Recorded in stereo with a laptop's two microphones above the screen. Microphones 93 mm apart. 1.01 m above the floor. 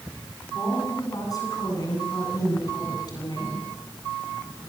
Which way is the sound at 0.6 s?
40° left (ahead or behind).